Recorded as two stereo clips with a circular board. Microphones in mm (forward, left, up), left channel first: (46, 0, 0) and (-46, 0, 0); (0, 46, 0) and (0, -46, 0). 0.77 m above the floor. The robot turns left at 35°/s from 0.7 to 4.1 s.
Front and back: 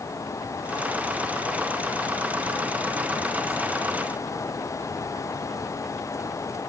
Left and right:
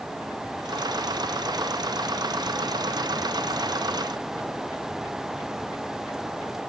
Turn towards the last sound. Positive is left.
No sound to turn to.